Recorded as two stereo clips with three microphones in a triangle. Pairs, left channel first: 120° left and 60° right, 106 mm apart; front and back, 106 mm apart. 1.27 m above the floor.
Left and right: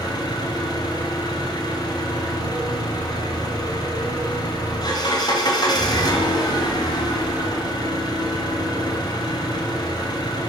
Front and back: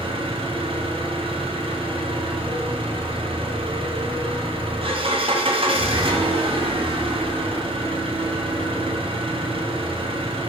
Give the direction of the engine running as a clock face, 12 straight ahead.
7 o'clock.